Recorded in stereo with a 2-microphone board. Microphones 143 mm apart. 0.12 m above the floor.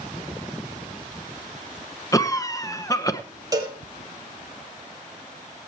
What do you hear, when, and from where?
2.1 s a cough: 25° left (ahead or behind), 1.1 m
3.5 s a cowbell: 25° right (ahead or behind), 3.5 m